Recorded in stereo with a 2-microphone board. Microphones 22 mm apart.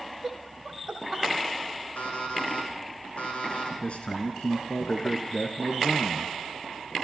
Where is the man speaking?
60° left (ahead or behind), 2.5 m.